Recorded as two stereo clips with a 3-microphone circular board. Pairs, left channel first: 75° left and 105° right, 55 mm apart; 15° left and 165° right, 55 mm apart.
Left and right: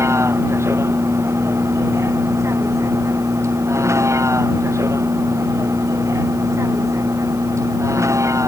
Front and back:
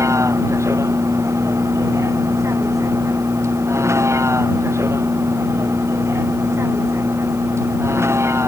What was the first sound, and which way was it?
A vehicle, 140° right.